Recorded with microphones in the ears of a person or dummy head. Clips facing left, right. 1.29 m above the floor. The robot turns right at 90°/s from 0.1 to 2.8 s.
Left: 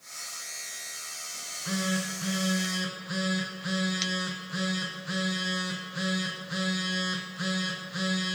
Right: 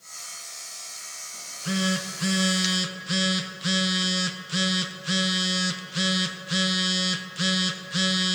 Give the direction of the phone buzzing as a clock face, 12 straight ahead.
6 o'clock.